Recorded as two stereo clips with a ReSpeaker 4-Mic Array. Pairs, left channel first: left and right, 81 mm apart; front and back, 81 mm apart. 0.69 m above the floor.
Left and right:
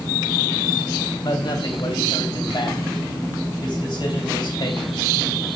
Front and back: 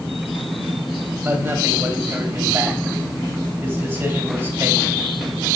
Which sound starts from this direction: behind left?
A man speaking, at 1.2 s.